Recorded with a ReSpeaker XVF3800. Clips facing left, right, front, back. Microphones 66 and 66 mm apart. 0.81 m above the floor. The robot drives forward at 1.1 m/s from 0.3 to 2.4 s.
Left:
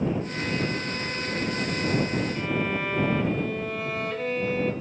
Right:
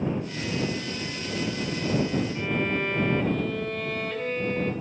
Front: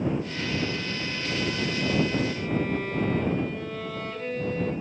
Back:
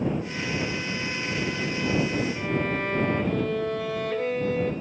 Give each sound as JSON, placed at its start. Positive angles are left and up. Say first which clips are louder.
{"t": 2.4, "sound": "a violin", "louder": "even, back 1 dB", "azimuth_deg": 175, "distance_m": 3.0}